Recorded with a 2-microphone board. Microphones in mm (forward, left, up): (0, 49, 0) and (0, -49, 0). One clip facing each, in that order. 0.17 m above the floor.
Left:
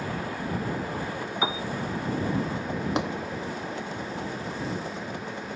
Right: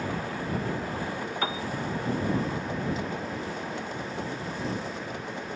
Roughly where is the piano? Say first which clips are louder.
Left 3 dB; centre.